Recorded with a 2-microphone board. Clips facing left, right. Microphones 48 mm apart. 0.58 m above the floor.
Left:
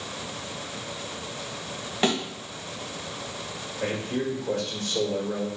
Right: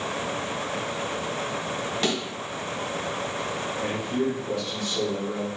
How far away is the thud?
About 1.2 m.